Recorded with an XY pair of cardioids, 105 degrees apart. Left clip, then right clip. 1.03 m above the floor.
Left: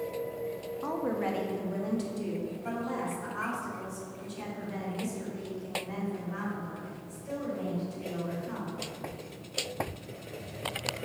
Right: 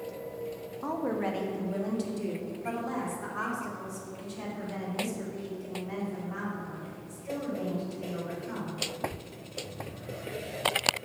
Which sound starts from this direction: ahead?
A woman speaking, at 0.8 s.